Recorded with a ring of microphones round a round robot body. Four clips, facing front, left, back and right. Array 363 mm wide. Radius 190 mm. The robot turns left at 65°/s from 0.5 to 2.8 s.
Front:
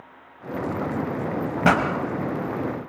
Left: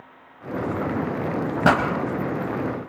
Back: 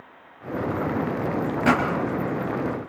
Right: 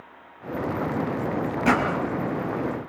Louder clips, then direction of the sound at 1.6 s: Left 3 dB, front 2 dB; 55° left.